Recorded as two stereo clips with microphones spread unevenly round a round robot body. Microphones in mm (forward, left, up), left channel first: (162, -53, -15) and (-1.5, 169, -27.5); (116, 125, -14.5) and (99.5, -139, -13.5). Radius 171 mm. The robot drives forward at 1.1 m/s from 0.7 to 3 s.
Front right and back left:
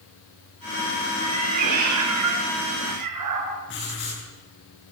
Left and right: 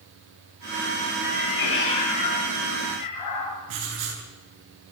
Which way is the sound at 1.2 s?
100° left.